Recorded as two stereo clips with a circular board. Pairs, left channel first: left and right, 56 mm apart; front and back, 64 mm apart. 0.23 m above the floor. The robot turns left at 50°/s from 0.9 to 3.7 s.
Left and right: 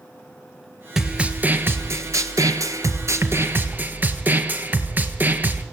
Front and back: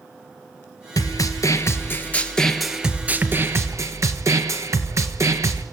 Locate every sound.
1.0 s a snare drum: 10° right, 1.8 m; by 5.6 s 145° right, 1.8 m